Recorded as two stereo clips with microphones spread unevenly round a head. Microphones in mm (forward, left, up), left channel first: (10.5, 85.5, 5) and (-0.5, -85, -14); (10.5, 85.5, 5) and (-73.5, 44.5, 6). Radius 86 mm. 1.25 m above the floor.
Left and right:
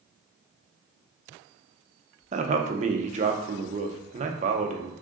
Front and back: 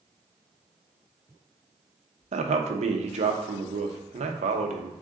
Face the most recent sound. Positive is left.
turn(degrees=-145)